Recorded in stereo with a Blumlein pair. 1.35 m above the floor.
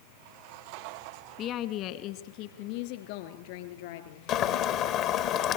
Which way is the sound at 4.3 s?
35° left.